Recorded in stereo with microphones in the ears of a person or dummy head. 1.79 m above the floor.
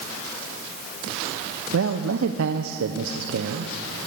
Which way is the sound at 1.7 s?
85° right.